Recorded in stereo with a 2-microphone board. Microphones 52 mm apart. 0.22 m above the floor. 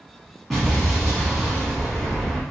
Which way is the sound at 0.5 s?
Centre (ahead or behind).